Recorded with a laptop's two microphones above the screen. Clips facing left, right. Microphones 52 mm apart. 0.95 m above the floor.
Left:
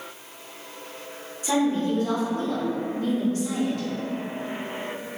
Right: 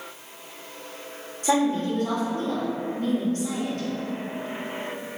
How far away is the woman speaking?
About 1.9 m.